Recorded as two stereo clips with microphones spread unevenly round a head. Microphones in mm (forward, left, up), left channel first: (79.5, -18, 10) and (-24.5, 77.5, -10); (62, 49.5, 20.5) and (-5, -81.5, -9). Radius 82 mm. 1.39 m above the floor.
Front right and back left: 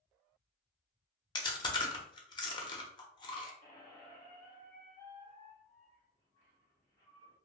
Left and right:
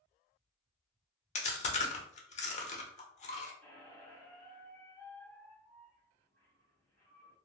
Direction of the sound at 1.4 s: 20° left.